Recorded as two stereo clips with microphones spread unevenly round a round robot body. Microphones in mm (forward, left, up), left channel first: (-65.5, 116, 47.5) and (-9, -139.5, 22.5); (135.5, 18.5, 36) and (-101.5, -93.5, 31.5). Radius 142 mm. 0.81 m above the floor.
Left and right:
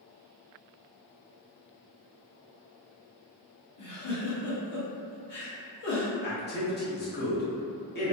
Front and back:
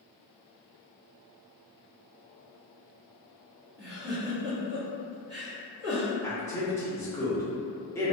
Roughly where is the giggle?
Behind left.